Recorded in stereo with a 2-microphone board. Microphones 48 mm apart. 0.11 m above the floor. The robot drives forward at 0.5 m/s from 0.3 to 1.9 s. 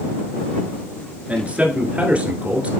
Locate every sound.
1.3 s a man speaking: 25° right (ahead or behind), 1.3 m